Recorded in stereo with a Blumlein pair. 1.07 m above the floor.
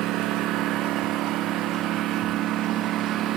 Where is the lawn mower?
35° right.